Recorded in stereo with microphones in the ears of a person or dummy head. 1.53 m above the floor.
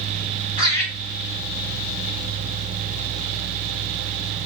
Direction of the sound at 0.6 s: 20° left (ahead or behind).